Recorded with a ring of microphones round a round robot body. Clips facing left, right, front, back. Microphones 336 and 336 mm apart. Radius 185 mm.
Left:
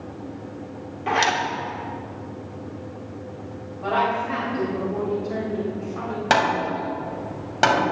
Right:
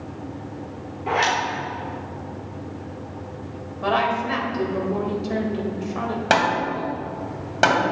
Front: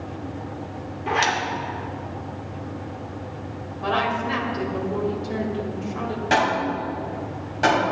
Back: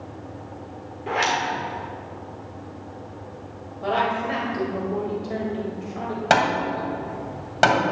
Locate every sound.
1.1 s a zipper: 60° left, 1.6 m
3.8 s a woman speaking: 60° right, 2 m
6.3 s hammering: 175° left, 2.5 m